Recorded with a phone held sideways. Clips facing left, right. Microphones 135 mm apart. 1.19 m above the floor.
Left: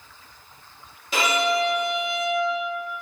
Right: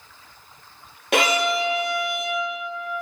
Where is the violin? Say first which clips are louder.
Right 2 dB; 60° right (ahead or behind), 1.0 m.